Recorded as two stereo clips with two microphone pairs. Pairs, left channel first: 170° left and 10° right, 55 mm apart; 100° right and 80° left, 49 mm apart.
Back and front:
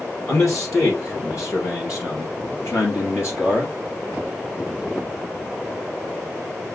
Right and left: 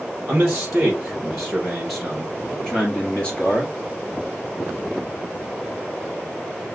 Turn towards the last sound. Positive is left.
turn(degrees=-155)